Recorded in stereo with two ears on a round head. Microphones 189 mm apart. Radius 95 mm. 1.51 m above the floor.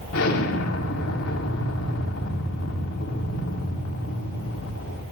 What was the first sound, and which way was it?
An explosion, 80° left.